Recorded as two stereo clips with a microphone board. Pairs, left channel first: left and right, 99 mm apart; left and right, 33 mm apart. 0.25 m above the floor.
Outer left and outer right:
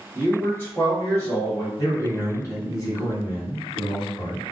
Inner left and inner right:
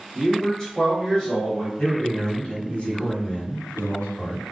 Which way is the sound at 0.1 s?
25° left (ahead or behind).